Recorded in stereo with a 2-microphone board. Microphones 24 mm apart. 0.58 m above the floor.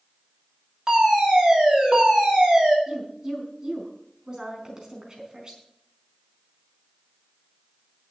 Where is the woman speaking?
30° right (ahead or behind), 4.5 m.